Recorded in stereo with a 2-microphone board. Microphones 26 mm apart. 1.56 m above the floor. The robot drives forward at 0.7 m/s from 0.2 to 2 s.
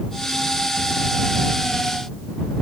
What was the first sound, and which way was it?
Only background noise.